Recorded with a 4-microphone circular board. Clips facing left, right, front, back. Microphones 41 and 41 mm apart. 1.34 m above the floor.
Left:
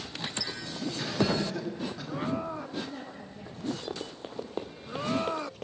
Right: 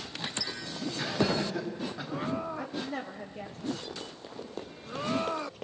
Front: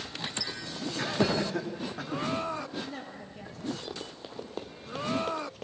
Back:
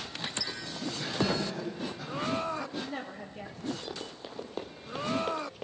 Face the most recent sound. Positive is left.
turn(degrees=-140)